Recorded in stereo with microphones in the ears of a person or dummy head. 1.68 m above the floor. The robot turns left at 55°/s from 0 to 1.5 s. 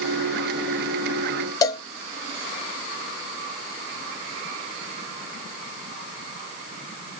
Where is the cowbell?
20° left (ahead or behind), 0.6 m.